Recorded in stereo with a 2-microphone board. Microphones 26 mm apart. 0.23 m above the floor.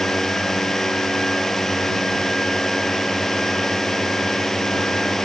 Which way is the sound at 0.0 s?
10° left (ahead or behind).